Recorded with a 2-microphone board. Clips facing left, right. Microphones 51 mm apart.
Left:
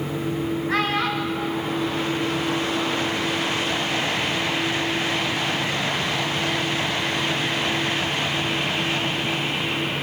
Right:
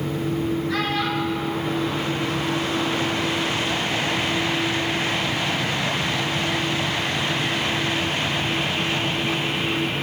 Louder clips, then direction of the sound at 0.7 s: Left 1 dB; 40° left (ahead or behind).